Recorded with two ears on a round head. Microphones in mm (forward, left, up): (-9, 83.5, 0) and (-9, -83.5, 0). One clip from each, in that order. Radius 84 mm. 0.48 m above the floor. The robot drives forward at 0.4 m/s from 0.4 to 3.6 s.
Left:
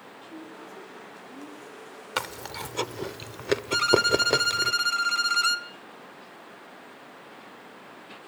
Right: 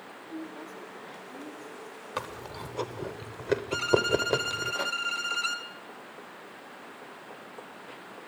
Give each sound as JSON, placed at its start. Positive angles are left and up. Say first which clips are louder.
{"t": 0.3, "sound": "a woman speaking", "louder": "right 3 dB", "side_deg": -15, "distance_m": 10.0}
{"t": 2.2, "sound": "chewing", "louder": "left 5 dB", "side_deg": 55, "distance_m": 0.8}
{"t": 3.7, "sound": "a violin", "louder": "left 5 dB", "side_deg": 35, "distance_m": 1.4}